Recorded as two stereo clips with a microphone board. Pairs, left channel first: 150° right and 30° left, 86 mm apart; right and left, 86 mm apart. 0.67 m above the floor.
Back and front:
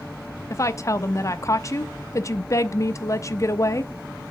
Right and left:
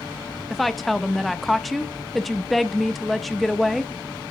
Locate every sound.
0.5 s a woman speaking: straight behind, 0.7 m